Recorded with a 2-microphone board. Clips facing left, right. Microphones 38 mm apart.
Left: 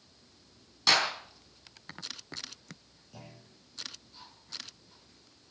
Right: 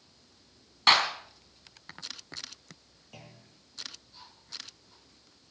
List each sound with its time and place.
0.9 s a clap: 35° right (ahead or behind), 4.5 m
3.1 s a clunk: 60° right (ahead or behind), 8 m